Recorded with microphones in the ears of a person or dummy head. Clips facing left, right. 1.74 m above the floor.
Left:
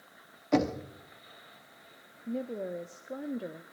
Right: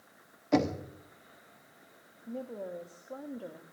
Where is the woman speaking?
25° left (ahead or behind), 0.6 m.